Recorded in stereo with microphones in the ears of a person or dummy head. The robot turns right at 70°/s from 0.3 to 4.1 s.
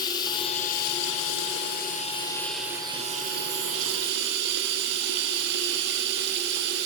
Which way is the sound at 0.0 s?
15° left.